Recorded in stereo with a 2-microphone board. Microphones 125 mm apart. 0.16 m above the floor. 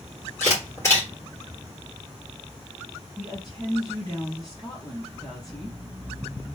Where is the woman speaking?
35° left (ahead or behind), 3 m.